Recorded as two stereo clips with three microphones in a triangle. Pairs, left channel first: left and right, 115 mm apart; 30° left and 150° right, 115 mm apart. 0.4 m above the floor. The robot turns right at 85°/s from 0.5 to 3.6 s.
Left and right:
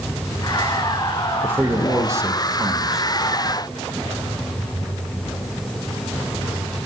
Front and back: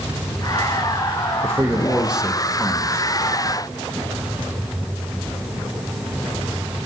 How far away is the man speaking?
About 0.8 m.